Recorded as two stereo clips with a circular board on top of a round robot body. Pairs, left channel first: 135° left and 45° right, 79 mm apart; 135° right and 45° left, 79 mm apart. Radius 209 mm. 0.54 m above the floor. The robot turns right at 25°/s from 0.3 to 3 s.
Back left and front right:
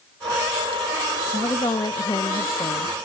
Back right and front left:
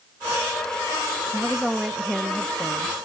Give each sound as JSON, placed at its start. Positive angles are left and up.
{"t": 1.3, "sound": "a woman speaking", "azimuth_deg": 125, "distance_m": 0.8}